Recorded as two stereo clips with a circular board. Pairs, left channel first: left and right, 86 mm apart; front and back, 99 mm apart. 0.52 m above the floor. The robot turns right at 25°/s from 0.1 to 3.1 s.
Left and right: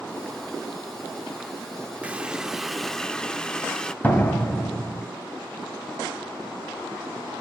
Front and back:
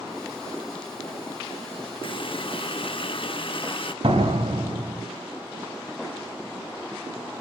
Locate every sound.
2.0 s a running tap: 20° right, 0.6 m; by 3.9 s 10° left, 0.6 m
4.0 s a door slam: 160° left, 2.5 m